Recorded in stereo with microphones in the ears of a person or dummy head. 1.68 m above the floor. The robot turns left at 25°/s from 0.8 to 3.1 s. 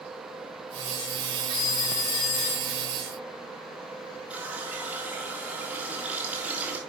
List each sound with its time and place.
1.5 s a phone ringing: 105° left, 3.5 m; by 2.8 s 75° left, 3.5 m
4.3 s a running tap: 10° right (ahead or behind), 2 m